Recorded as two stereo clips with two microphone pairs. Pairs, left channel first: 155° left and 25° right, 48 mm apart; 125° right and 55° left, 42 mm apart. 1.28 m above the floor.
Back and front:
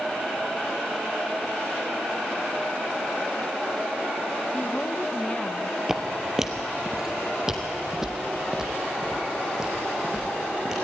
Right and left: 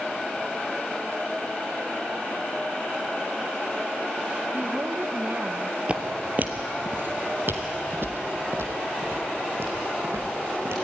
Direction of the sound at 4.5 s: 100° left.